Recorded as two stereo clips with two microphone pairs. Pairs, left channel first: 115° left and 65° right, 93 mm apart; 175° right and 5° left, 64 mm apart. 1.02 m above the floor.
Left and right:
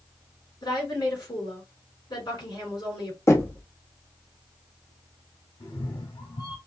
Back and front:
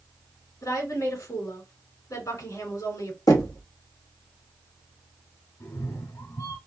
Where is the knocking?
175° left, 1.2 m.